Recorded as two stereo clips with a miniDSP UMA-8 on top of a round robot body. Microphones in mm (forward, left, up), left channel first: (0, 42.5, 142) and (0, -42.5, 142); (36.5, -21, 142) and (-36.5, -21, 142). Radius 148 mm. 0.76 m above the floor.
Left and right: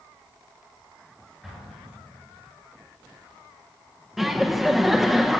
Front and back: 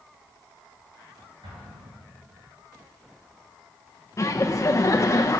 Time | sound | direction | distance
1.4 | an explosion | 175° right | 3.5 m
4.2 | laughter | 5° right | 1.0 m